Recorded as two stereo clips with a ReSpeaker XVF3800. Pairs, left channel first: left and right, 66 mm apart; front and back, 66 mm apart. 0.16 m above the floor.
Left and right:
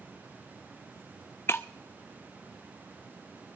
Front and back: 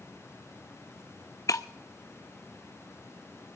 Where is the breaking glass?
35° left, 0.5 m.